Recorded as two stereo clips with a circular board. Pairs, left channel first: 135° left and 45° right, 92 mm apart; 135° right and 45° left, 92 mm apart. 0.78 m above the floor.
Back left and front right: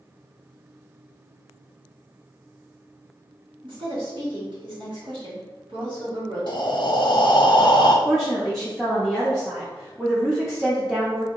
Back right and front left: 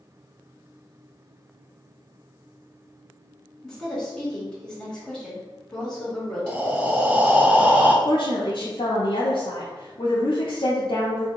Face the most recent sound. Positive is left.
turn(degrees=-135)